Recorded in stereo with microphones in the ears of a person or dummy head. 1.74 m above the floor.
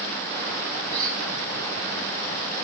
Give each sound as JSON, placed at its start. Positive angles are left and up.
{"t": 0.9, "sound": "a squeak", "side_deg": -20, "distance_m": 2.5}